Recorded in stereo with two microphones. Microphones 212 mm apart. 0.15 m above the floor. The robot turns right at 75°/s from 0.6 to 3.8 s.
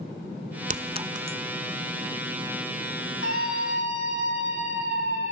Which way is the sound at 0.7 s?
40° right (ahead or behind).